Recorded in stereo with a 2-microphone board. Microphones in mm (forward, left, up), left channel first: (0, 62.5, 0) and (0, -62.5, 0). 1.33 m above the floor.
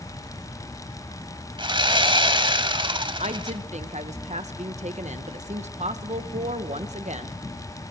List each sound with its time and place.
1.6 s sawing: 40° right (ahead or behind), 1.5 m
3.2 s a woman speaking: 65° right (ahead or behind), 1.4 m